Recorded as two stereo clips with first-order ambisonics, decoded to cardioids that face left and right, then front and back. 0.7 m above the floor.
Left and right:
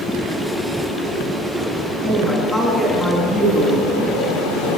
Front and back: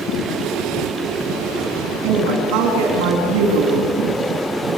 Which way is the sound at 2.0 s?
Straight behind.